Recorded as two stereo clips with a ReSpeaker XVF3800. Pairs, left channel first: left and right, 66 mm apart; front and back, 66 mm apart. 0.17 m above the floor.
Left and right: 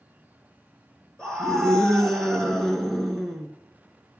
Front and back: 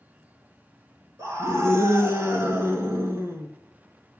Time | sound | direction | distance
1.2 | a scream | 165° left | 2 m